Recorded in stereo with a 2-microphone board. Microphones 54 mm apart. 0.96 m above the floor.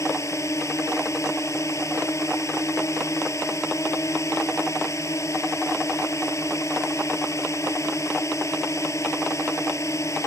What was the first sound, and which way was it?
A drone, 60° left (ahead or behind).